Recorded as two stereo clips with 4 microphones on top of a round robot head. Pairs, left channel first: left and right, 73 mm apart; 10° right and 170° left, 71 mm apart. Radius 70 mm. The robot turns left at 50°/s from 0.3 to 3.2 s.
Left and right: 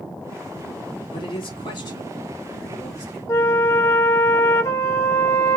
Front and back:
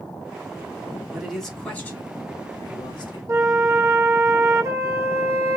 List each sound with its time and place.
1.1 s a man speaking: 90° left, 2.5 m; by 3.2 s 15° right, 2.5 m
3.3 s a flute: 130° left, 0.5 m